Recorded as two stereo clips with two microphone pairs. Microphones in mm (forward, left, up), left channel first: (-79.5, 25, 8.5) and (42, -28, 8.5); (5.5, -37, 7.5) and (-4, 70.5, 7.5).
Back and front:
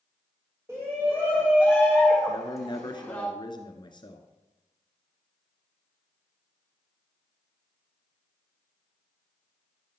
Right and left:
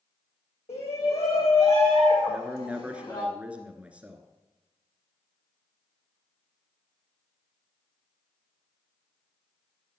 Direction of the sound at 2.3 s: 165° left.